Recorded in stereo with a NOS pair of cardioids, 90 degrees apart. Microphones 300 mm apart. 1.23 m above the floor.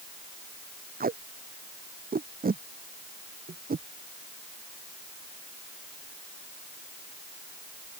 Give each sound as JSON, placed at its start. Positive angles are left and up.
{"t": 1.0, "sound": "tape being pulled", "azimuth_deg": -30}